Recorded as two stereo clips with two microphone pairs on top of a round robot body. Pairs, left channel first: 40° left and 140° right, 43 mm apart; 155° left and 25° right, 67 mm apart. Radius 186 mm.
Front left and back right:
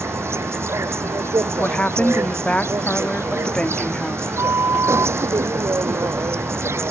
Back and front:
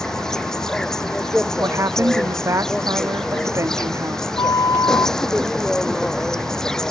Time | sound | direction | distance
0.0 | an insect | 120° right | ?
1.6 | a woman speaking | 5° right | ?
4.4 | a flute | 170° right | ?